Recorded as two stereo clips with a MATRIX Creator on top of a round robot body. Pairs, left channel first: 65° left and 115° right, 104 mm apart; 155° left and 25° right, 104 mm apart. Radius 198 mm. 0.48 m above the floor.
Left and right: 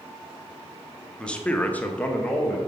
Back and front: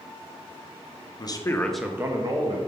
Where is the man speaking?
145° left, 1.2 m; by 2.6 s 10° right, 1.4 m.